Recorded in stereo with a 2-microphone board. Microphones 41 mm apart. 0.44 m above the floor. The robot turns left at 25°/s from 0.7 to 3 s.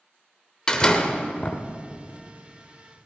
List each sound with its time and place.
0.7 s a door slam: 15° left (ahead or behind), 1.1 m; by 1.6 s 35° left (ahead or behind), 1.1 m